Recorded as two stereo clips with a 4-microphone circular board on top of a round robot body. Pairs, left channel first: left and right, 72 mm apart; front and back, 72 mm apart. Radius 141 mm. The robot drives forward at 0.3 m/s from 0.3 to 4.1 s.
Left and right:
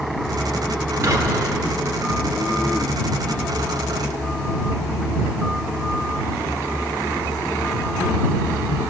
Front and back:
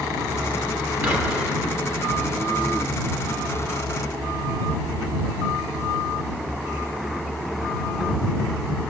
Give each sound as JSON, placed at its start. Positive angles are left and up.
{"t": 1.0, "sound": "whispering", "azimuth_deg": -125, "distance_m": 1.6}